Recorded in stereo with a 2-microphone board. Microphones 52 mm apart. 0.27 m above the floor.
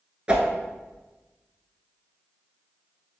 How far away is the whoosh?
About 0.6 m.